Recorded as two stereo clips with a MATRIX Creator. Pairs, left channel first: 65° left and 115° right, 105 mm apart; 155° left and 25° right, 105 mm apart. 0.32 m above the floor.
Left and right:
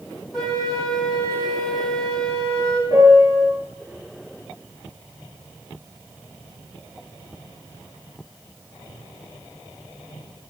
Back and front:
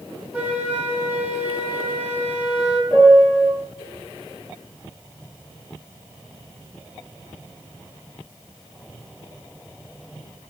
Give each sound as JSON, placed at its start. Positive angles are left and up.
{"t": 0.3, "sound": "a flute", "azimuth_deg": 0, "distance_m": 1.2}
{"t": 2.9, "sound": "a piano", "azimuth_deg": -50, "distance_m": 3.0}